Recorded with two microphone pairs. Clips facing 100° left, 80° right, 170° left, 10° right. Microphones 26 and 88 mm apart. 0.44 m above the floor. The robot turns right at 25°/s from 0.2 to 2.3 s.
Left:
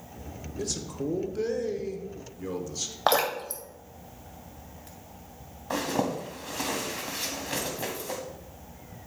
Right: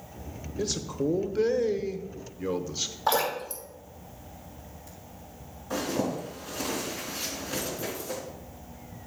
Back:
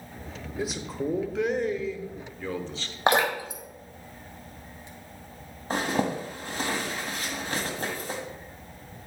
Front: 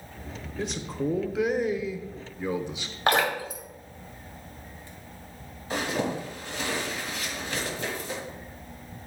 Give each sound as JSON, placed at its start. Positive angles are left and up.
{"t": 0.6, "sound": "a man speaking", "azimuth_deg": -110, "distance_m": 0.8}
{"t": 3.1, "sound": "dripping", "azimuth_deg": 105, "distance_m": 1.8}
{"t": 5.7, "sound": "a zipper", "azimuth_deg": 130, "distance_m": 1.6}